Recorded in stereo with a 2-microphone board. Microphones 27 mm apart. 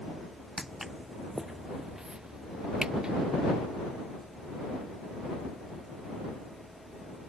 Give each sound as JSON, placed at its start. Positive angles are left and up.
{"t": 0.6, "sound": "footsteps", "side_deg": -5}